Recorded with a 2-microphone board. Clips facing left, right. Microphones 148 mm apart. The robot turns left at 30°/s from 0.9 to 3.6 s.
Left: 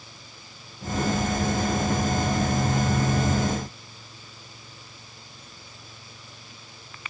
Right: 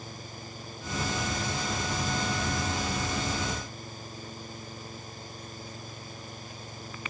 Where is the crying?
I don't hear crying.